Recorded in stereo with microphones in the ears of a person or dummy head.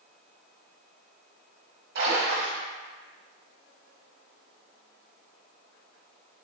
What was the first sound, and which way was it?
A splash, 60° right (ahead or behind).